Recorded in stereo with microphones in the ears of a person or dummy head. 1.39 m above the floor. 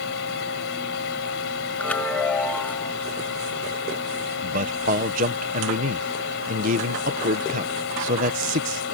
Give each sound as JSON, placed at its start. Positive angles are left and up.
{"t": 0.0, "sound": "a fan", "side_deg": 75}
{"t": 1.8, "sound": "a chime", "side_deg": 10}
{"t": 4.4, "sound": "a man speaking", "side_deg": -40}